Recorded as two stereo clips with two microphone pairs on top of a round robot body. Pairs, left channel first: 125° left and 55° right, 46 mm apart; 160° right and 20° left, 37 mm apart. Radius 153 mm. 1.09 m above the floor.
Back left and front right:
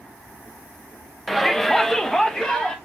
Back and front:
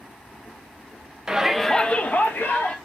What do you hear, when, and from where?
1.3 s a shout: 55° left, 0.6 m; by 2.8 s 170° right, 0.8 m